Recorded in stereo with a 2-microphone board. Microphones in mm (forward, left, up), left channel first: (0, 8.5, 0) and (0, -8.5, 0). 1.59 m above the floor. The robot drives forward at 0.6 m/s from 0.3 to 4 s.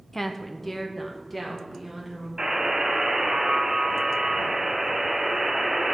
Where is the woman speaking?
20° left (ahead or behind), 0.6 m; by 2.3 s 10° left (ahead or behind), 1.6 m.